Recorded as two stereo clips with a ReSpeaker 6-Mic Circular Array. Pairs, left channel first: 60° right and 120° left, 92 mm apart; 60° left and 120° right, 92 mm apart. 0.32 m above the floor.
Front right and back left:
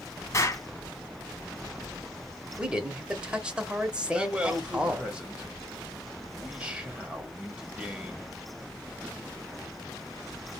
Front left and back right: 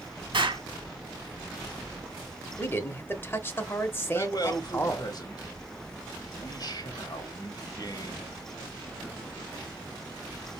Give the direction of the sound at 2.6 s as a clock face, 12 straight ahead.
10 o'clock.